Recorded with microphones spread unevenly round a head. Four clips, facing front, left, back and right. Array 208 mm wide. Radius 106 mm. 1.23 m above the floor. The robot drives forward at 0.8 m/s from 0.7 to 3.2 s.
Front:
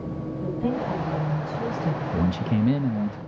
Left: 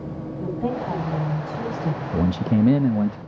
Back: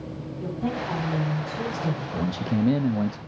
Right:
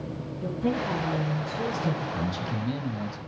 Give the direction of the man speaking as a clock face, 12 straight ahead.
9 o'clock.